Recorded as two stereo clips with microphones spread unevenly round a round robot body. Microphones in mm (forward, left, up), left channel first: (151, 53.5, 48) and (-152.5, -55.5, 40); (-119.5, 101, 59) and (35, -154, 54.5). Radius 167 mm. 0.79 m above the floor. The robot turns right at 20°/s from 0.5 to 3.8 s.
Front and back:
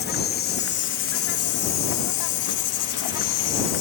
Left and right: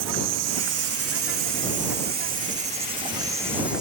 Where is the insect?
35° right; by 3.8 s 30° left.